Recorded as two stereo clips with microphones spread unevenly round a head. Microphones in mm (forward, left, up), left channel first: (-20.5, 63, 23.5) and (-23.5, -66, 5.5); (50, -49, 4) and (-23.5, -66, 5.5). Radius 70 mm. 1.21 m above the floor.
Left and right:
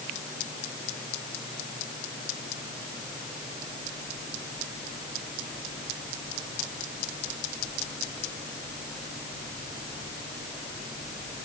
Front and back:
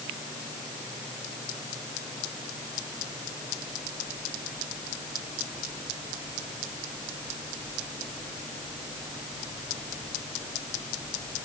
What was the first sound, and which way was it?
Only background noise.